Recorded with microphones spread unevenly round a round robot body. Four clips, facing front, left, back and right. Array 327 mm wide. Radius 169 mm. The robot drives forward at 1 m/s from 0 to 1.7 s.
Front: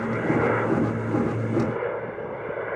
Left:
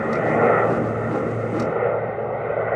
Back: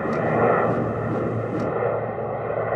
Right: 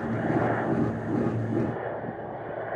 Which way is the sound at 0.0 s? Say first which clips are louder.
Left 8 dB, back 3 dB; 140° left.